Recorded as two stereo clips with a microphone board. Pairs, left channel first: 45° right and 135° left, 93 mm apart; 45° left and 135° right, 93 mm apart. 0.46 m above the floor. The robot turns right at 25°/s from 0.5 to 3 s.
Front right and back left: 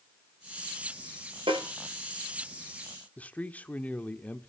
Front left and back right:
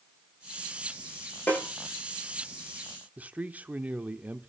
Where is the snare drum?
115° left, 8.5 m; by 1.6 s 120° left, 8.5 m.